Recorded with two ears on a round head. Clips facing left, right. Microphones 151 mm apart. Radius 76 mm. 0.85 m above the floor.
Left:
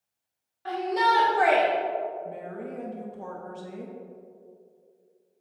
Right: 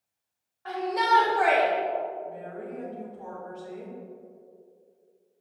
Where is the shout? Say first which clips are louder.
Left 1 dB; 35° left (ahead or behind), 1.8 m; by 1.7 s 25° left (ahead or behind), 0.8 m.